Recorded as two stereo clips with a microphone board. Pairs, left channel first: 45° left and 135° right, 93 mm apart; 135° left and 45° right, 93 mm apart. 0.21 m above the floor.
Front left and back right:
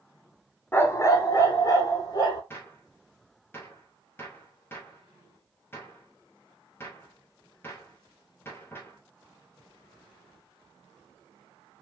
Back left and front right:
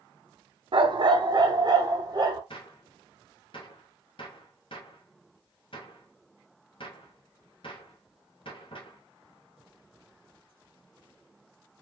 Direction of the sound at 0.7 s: 20° right.